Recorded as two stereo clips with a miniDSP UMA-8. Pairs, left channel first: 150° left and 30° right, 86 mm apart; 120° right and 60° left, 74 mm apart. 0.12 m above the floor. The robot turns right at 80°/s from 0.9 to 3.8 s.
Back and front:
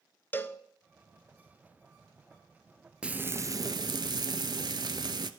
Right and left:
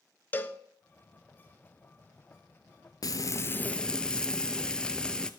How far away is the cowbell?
About 0.5 m.